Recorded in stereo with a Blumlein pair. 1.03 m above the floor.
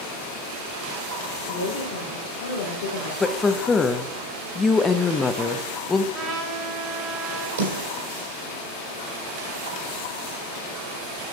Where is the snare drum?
65° right, 4 m.